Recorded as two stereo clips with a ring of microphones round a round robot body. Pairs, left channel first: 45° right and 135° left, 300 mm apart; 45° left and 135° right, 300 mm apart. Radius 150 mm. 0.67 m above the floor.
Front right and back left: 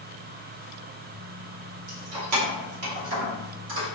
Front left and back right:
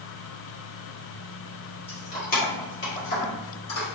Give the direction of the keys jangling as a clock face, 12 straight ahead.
8 o'clock.